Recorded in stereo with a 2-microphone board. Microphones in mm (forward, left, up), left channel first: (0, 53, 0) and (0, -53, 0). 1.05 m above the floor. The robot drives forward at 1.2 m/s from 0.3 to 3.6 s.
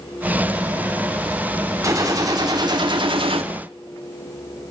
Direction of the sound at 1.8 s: 30° right (ahead or behind).